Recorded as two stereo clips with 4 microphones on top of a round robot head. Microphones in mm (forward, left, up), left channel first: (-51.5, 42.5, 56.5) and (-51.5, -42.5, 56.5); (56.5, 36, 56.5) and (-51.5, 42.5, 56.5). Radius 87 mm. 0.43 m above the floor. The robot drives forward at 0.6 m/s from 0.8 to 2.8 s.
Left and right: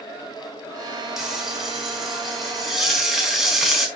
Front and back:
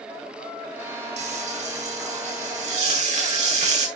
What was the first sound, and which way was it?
Frying, 175° right.